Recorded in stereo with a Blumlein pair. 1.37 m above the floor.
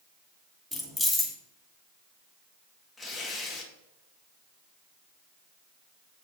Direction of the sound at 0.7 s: 5° left.